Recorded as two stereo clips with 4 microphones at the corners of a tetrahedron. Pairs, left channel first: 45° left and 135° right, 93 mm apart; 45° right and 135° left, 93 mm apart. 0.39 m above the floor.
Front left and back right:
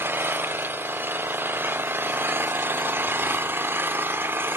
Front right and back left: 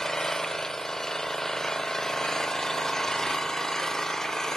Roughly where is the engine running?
Behind right.